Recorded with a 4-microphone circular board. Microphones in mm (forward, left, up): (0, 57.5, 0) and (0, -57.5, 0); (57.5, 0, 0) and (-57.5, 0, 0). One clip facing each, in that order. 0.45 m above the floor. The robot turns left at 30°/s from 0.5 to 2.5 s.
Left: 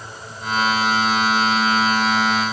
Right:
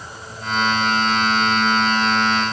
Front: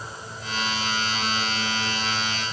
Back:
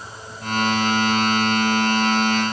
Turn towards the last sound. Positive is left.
No sound to turn to.